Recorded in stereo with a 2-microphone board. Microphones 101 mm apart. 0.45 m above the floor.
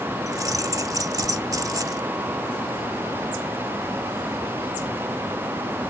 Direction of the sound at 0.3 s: 40° right (ahead or behind).